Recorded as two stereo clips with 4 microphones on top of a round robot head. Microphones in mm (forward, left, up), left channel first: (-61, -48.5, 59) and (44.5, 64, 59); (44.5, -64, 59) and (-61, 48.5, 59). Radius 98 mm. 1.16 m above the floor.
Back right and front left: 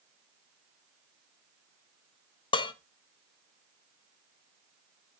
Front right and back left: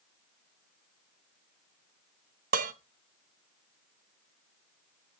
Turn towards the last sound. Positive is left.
turn(degrees=170)